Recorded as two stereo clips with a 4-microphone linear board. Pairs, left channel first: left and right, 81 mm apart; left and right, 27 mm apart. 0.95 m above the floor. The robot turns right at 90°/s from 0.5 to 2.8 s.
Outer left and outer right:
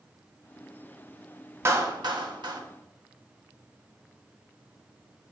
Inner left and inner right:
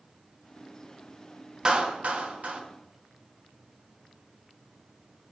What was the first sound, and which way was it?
A clap, 30° right (ahead or behind).